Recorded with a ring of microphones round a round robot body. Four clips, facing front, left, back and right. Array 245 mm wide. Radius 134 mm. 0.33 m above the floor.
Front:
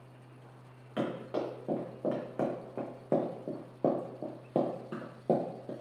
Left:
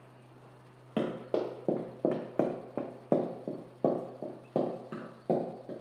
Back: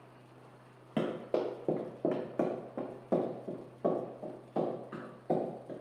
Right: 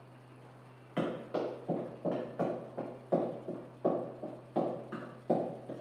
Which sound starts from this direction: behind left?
Running footsteps, at 1.0 s.